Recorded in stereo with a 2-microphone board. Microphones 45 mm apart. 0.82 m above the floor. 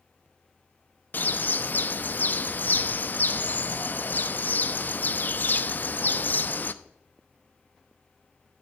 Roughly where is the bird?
Left.